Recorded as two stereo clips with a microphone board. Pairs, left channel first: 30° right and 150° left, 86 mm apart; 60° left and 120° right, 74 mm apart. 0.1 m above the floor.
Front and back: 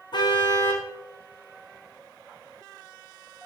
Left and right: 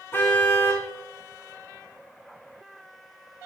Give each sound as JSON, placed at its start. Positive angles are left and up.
{"t": 0.1, "sound": "a car horn", "azimuth_deg": 0, "distance_m": 3.0}